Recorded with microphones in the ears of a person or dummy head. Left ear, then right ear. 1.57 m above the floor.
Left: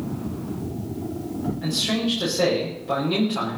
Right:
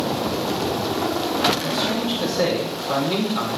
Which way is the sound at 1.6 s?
5° right (ahead or behind).